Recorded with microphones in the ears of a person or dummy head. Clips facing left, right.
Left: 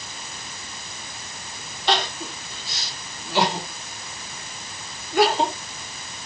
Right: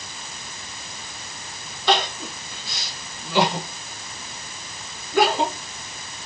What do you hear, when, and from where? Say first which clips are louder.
1.9 s crying: right 2 dB; 70° right (ahead or behind), 1.9 m